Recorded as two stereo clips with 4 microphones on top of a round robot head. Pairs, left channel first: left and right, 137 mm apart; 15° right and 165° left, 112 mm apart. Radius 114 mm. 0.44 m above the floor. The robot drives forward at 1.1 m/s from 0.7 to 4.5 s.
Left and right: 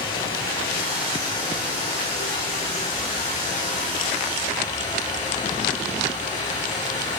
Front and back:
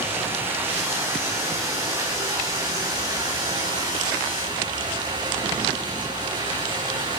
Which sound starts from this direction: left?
Running water, at 0.0 s.